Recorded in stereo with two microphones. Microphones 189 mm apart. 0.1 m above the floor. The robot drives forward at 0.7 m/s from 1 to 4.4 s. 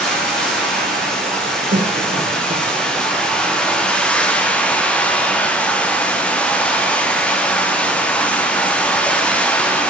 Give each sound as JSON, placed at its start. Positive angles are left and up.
{"t": 0.0, "sound": "running water", "side_deg": 5, "distance_m": 4.5}
{"t": 1.7, "sound": "a cough", "side_deg": -55, "distance_m": 4.0}